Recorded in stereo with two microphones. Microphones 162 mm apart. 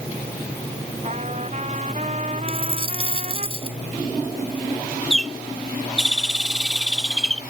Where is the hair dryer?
No hair dryer in this recording.